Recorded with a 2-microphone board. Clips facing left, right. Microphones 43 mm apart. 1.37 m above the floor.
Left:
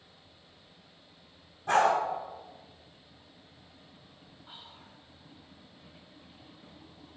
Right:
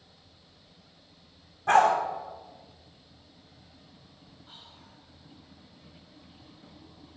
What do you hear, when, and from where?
1.7 s a dog barking: 55° right (ahead or behind), 4 m
4.5 s whispering: 15° left (ahead or behind), 1.8 m